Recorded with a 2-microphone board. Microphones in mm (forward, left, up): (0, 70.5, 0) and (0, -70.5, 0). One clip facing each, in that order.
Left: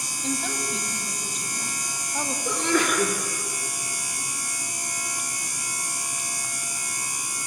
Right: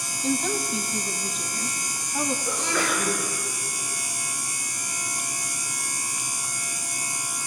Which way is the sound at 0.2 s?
Centre (ahead or behind).